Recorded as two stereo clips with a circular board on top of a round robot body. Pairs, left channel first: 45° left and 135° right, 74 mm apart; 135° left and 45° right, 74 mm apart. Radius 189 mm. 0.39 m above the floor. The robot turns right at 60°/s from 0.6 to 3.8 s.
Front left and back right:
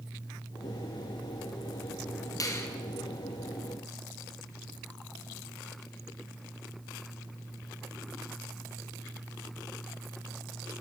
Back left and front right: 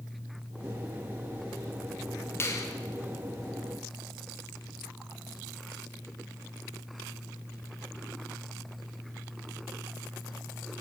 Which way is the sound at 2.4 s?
80° left.